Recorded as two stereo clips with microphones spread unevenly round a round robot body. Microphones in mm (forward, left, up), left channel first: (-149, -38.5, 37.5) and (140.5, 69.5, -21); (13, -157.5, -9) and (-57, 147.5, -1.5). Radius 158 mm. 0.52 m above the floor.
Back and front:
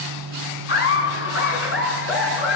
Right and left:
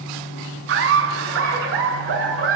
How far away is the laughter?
About 5 m.